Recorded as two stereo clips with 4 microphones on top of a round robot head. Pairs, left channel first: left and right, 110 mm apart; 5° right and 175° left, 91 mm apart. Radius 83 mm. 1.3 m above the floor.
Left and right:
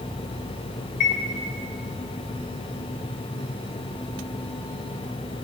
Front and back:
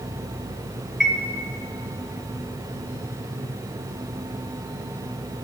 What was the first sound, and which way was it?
A chime, 85° left.